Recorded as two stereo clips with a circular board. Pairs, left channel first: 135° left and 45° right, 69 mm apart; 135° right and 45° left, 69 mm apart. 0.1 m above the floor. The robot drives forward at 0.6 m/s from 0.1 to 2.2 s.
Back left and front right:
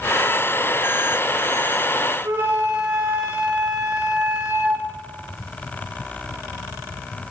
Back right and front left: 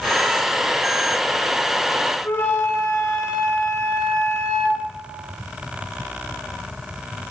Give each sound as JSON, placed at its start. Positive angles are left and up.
{"t": 2.2, "sound": "a flute", "azimuth_deg": -85, "distance_m": 5.0}